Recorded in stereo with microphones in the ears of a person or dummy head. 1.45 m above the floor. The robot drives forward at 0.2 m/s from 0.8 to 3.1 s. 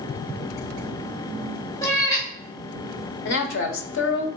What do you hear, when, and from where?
1.8 s a cat meowing: 30° left (ahead or behind), 1.9 m; by 2.3 s 25° left (ahead or behind), 2.0 m
3.2 s a man speaking: 75° left (ahead or behind), 0.8 m